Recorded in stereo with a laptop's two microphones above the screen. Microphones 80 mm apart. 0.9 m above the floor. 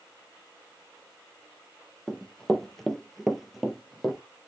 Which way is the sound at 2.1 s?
5° left (ahead or behind).